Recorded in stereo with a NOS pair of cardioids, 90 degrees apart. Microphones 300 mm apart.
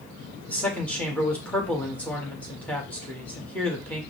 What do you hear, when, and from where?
0.5 s a man speaking: 5° left, 1.6 m